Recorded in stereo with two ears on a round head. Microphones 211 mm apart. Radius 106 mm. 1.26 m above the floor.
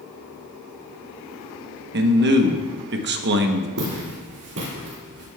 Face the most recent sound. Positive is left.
turn(degrees=-65)  # may be behind; listen again after turning